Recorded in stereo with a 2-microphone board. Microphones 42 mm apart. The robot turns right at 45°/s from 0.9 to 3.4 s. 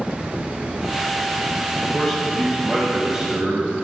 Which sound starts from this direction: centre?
A man speaking, at 1.9 s.